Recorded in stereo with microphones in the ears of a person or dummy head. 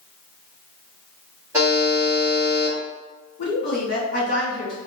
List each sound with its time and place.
1.5 s a buzzer: 5° right (ahead or behind), 1.7 m
3.4 s a woman speaking: 45° left (ahead or behind), 1.7 m